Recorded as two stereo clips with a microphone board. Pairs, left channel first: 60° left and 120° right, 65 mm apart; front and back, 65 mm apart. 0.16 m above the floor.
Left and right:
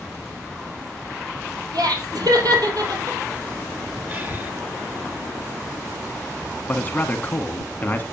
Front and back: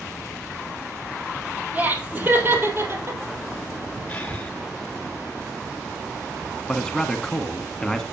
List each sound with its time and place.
1.7 s laughter: 115° right, 4.5 m; by 3.2 s 140° right, 3.5 m
4.1 s breathing: 65° right, 2 m
6.7 s a man speaking: 65° left, 1.3 m